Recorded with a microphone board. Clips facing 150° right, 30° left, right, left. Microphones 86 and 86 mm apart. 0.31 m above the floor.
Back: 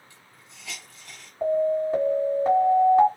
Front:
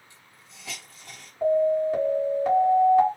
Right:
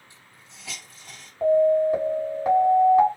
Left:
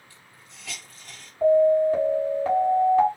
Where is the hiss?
25° right, 1.8 m.